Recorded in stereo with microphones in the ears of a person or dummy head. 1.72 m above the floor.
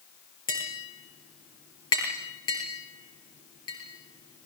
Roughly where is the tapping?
Left.